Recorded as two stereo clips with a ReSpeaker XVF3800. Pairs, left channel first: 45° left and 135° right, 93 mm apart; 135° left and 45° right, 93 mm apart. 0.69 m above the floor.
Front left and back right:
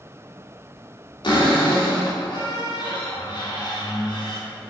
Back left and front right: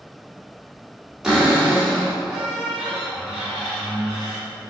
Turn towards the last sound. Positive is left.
turn(degrees=35)